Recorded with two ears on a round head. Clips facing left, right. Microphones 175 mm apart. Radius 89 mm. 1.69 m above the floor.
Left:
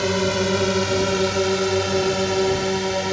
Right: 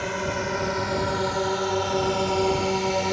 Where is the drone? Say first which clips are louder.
Left 8 dB; 45° left (ahead or behind); by 3.1 s 5° left (ahead or behind).